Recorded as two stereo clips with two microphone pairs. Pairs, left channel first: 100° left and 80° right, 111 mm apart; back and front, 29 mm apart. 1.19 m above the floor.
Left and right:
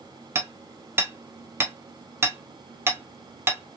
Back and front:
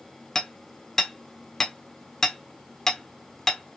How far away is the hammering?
About 0.7 m.